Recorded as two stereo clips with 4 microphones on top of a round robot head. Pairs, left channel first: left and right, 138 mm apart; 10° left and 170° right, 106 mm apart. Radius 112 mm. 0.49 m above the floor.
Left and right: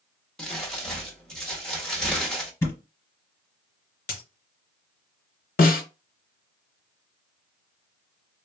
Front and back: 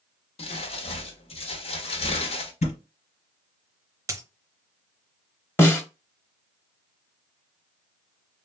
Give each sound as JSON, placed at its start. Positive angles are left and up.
{"t": 0.4, "sound": "crumpling", "azimuth_deg": 5, "distance_m": 0.9}
{"t": 2.6, "sound": "a thud", "azimuth_deg": 20, "distance_m": 1.3}
{"t": 4.1, "sound": "a dropped coin", "azimuth_deg": 130, "distance_m": 0.6}
{"t": 5.6, "sound": "a snare drum", "azimuth_deg": 80, "distance_m": 1.1}